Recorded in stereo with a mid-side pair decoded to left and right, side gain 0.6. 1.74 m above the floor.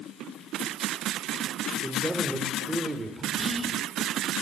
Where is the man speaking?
15° right, 7.5 m.